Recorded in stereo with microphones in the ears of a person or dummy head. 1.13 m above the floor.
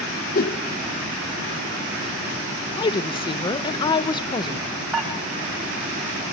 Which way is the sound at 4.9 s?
5° right (ahead or behind).